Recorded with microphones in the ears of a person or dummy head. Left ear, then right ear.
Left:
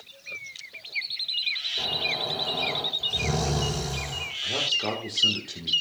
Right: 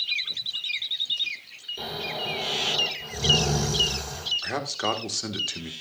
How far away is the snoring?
About 9 m.